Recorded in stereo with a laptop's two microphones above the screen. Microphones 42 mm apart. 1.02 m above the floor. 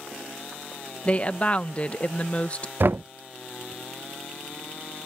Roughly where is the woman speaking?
Left.